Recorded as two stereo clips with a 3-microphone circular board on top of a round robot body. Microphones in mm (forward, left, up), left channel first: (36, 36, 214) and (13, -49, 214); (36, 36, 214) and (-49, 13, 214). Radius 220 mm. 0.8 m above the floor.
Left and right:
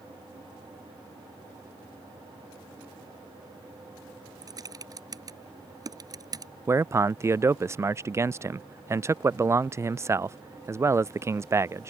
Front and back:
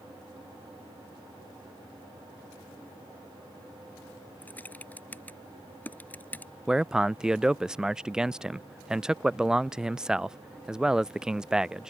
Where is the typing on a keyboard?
55° right.